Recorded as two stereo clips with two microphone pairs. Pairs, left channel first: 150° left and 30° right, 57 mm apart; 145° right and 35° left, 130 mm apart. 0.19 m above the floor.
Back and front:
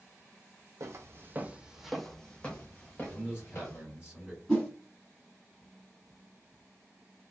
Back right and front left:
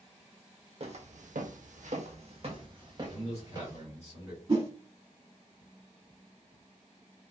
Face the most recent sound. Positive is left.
turn(degrees=70)